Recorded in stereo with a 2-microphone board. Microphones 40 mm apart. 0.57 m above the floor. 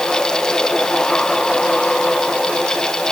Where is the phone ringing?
No phone ringing in this recording.